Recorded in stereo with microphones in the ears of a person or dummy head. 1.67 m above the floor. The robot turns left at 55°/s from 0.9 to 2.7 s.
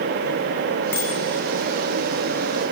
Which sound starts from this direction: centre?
A bicycle bell, at 0.9 s.